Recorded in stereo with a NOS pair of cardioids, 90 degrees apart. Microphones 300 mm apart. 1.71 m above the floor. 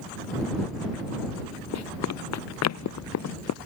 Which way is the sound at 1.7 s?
60° left.